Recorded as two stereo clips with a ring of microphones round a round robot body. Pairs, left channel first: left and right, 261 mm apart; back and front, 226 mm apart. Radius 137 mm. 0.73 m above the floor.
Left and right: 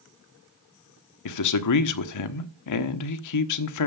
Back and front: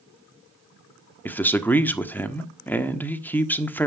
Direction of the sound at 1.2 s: 95° left.